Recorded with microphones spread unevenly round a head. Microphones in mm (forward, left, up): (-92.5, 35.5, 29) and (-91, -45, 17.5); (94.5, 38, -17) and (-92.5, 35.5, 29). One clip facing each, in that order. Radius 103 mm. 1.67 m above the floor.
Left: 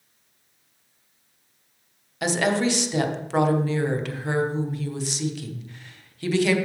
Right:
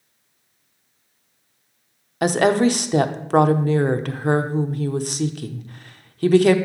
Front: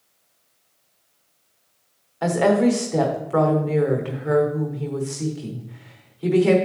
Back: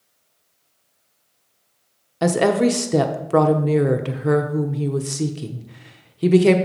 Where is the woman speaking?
135° right, 0.8 m.